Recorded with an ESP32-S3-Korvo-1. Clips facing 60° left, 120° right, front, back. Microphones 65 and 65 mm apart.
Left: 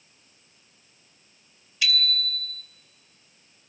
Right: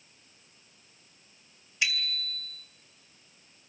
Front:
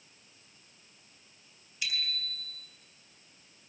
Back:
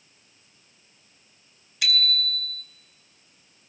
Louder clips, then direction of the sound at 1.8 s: Left 4 dB, back 10 dB; 170° left.